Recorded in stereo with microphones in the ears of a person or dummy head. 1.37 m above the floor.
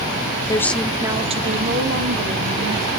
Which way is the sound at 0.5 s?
20° left (ahead or behind).